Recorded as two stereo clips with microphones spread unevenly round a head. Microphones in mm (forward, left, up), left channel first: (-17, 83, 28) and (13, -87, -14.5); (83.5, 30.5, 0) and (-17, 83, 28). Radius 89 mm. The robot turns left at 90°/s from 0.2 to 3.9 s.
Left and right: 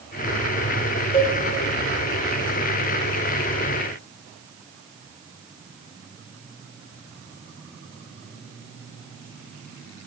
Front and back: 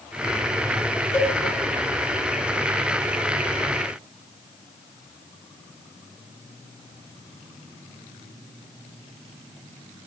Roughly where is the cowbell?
Ahead left.